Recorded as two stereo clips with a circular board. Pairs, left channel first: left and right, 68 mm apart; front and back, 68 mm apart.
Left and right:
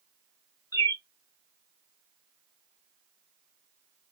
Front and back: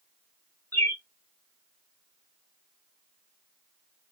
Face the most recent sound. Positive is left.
turn(degrees=55)